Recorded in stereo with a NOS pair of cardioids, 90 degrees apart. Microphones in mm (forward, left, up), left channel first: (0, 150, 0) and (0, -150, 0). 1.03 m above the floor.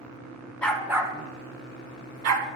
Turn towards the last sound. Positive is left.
turn(degrees=-70)